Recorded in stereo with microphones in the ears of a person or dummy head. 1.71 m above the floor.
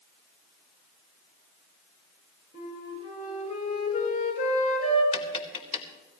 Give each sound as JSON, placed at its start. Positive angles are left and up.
{"t": 2.5, "sound": "a flute", "side_deg": 50, "distance_m": 8.5}
{"t": 5.1, "sound": "tapping", "side_deg": 40, "distance_m": 2.5}